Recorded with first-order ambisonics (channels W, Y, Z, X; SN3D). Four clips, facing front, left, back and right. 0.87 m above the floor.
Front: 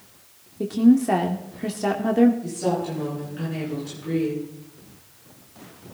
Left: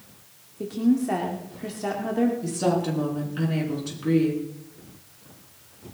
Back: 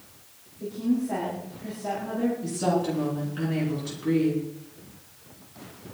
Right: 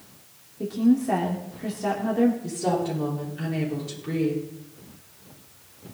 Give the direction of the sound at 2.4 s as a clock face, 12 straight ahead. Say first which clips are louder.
Left 1 dB, even; 8 o'clock.